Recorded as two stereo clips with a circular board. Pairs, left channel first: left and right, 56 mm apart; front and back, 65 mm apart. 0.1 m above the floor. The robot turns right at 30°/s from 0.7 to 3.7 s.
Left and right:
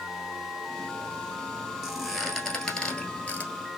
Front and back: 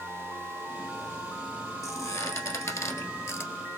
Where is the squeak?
10° right, 1.3 m; by 3.5 s 40° left, 1.3 m.